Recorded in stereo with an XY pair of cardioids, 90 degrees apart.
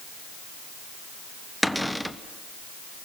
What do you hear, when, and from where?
1.6 s a cupboard door: straight ahead, 1.1 m